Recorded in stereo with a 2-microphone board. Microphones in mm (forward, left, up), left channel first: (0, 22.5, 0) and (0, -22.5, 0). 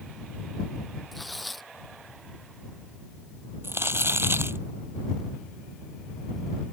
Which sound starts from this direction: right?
Crumpling, at 3.6 s.